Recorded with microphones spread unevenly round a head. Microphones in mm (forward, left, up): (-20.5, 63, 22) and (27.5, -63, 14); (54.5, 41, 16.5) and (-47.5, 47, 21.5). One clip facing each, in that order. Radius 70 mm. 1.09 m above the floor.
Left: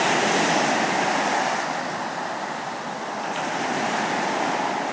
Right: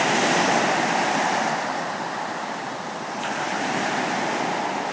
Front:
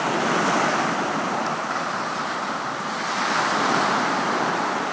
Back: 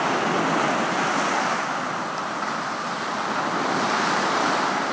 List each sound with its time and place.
Only background noise.